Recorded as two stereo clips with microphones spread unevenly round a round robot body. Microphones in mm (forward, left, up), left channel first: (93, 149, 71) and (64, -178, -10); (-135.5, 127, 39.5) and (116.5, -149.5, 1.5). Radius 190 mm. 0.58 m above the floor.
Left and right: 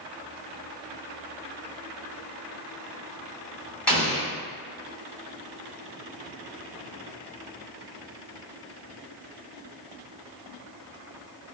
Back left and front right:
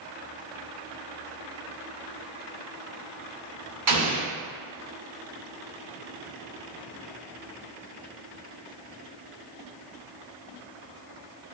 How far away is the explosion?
About 1.7 m.